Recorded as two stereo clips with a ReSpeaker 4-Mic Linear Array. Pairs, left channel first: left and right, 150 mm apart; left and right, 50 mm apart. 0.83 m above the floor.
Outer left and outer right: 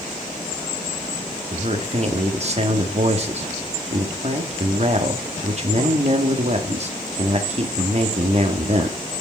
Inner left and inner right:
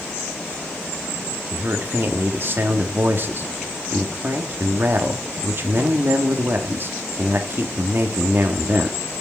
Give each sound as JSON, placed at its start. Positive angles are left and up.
{"t": 1.5, "sound": "a man speaking", "side_deg": -45, "distance_m": 1.4}